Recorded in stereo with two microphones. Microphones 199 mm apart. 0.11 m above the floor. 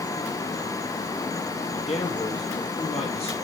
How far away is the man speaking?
About 2.5 m.